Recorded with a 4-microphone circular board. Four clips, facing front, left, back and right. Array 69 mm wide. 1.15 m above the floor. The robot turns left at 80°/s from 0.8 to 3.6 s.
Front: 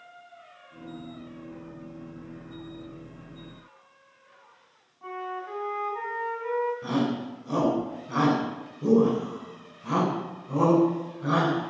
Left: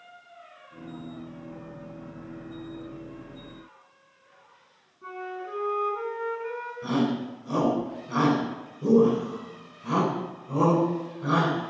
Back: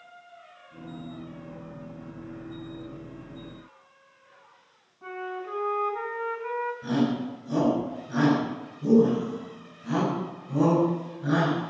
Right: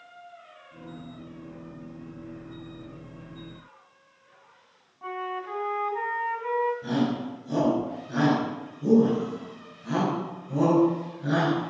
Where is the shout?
25° left, 9.5 m.